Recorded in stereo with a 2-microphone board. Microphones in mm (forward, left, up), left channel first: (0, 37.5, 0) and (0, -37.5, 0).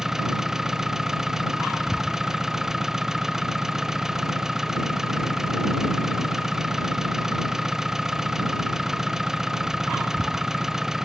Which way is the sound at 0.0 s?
5° right (ahead or behind).